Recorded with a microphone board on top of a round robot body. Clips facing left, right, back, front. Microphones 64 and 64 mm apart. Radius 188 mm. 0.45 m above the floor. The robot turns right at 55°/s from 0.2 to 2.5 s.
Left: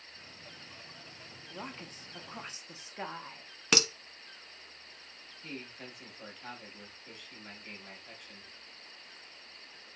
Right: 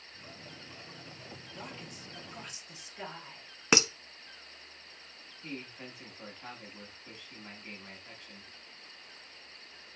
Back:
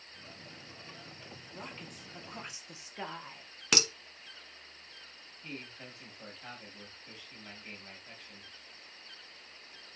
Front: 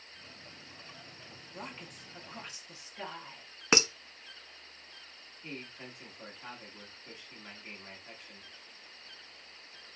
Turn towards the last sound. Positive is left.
turn(degrees=-55)